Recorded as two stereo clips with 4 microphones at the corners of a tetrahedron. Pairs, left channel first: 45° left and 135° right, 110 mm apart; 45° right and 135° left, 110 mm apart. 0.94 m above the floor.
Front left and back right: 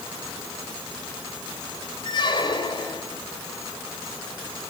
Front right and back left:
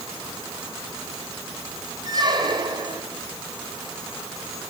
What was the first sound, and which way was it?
A squeak, 90° left.